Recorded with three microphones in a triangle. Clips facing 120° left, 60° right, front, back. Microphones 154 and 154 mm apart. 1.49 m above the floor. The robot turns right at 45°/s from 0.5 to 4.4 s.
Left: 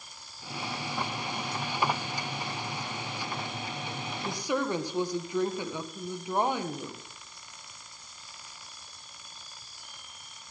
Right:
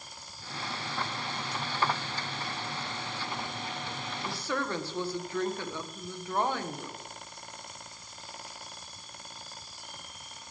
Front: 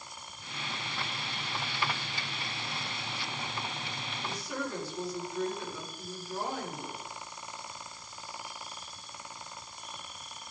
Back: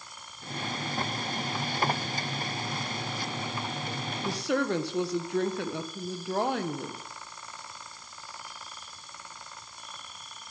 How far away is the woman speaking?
About 1.4 m.